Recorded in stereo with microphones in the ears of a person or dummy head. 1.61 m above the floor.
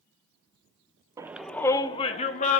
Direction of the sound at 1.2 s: 20° right (ahead or behind).